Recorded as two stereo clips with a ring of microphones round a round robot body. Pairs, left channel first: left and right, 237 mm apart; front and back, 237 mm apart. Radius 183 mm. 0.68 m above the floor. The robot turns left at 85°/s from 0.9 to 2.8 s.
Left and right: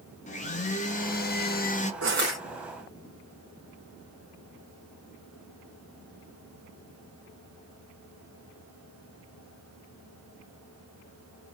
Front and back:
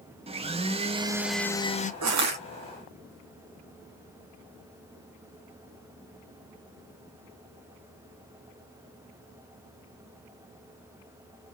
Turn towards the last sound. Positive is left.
turn(degrees=150)